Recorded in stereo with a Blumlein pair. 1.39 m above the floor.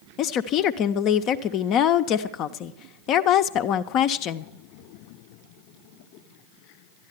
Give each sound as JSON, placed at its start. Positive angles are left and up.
{"t": 0.2, "sound": "a woman speaking", "azimuth_deg": 35, "distance_m": 0.6}